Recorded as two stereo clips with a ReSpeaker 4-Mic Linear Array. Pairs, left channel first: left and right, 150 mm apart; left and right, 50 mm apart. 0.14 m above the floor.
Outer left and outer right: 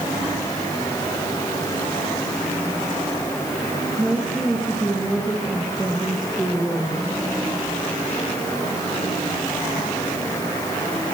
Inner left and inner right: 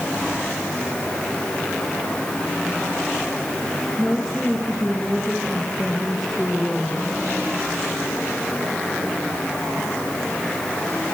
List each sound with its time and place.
4.0 s a woman speaking: centre (ahead or behind), 3 m